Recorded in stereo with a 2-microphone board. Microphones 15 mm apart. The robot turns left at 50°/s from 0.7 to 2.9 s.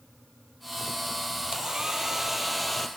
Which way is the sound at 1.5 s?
125° right.